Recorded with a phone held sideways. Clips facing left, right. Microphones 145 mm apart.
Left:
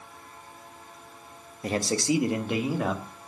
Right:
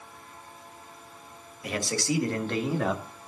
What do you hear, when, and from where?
1.6 s a man speaking: 35° left (ahead or behind), 1.5 m; by 3.0 s centre (ahead or behind), 2 m